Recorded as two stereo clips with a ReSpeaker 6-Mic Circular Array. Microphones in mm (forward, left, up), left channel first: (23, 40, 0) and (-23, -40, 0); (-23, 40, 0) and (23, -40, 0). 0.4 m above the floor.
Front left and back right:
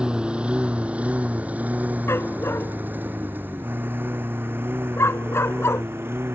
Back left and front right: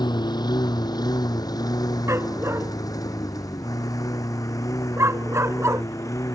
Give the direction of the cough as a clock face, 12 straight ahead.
I don't hear a cough.